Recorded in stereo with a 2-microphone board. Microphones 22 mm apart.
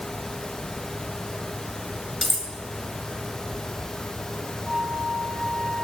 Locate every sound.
2.2 s cutlery clinking: centre (ahead or behind), 1.0 m
4.6 s a flute: 55° left (ahead or behind), 3.5 m